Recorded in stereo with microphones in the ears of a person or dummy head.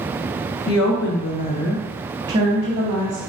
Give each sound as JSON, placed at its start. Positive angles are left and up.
{"t": 0.7, "sound": "a woman speaking", "side_deg": 70, "distance_m": 0.9}